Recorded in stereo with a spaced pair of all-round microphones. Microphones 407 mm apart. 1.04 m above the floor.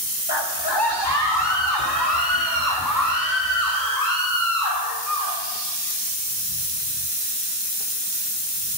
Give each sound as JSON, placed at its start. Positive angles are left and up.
{"t": 0.3, "sound": "a scream", "side_deg": 80, "distance_m": 1.9}